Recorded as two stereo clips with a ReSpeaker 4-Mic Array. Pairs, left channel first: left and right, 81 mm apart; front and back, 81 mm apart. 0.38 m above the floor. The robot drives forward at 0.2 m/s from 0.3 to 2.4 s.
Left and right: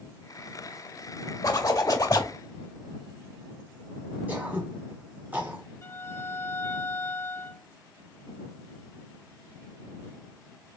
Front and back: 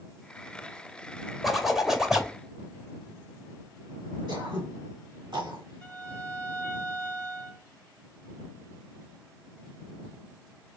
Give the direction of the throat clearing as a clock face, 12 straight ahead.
5 o'clock.